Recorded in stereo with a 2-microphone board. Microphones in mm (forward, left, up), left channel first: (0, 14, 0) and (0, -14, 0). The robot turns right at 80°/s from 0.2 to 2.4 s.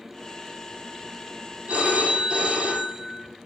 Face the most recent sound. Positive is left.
turn(degrees=-30)